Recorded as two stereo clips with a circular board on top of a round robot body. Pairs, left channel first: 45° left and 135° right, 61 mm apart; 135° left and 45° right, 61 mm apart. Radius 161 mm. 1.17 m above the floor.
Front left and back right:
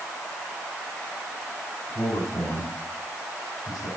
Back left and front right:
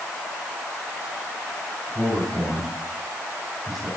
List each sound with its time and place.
1.9 s a man speaking: 45° left, 5 m